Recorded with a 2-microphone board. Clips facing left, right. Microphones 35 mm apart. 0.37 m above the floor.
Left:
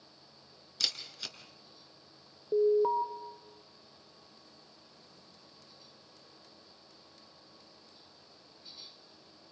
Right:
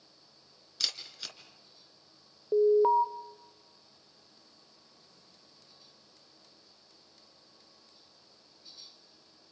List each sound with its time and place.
0.8 s a camera shutter: centre (ahead or behind), 3 m
2.5 s an alarm: 25° right (ahead or behind), 0.6 m